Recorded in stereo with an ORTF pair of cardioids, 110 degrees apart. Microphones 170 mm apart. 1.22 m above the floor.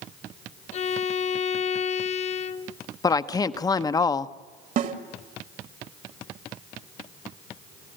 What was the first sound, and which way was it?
A violin, 45° left.